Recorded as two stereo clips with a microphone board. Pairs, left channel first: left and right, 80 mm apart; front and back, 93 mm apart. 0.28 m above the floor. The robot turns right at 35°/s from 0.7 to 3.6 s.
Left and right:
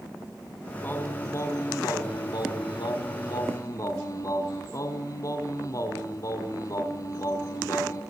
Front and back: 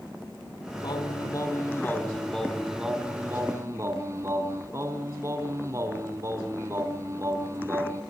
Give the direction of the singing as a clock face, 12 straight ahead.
11 o'clock.